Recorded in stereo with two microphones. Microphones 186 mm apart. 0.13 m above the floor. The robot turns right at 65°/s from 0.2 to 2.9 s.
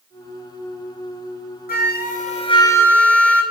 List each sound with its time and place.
1.7 s a flute: 90° left, 0.8 m; by 3.4 s 170° left, 0.8 m